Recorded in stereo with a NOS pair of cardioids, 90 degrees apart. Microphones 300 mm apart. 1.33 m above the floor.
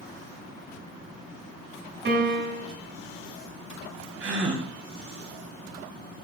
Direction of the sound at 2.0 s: 40° right.